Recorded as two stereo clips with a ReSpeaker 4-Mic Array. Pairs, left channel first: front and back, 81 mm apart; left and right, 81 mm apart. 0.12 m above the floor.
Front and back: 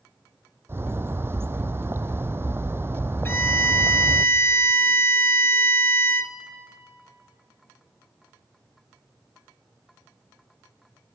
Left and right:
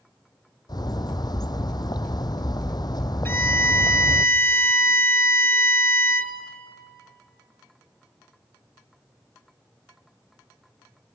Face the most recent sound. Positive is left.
turn(degrees=45)